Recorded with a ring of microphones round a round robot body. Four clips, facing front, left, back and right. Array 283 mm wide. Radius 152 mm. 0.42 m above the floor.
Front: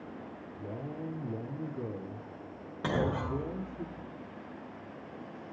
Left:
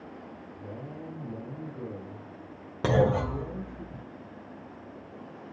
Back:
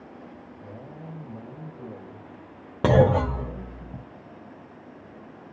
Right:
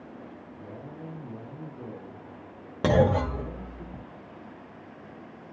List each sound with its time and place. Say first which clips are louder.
0.6 s a man speaking: left 1 dB, front 5 dB; 15° left, 7 m
2.8 s a clunk: right 2 dB, back 12 dB; 170° right, 1.3 m